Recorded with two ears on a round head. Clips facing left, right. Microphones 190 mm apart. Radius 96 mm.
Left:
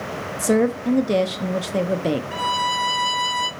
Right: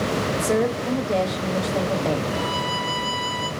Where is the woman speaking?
40° left (ahead or behind), 1.0 m.